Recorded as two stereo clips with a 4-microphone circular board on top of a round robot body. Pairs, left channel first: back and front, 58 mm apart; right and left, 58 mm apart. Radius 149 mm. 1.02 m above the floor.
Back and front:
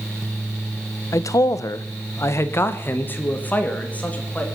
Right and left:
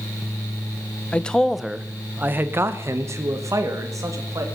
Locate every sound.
1.1 s a man speaking: 160° right, 0.9 m; by 4.5 s 110° left, 2 m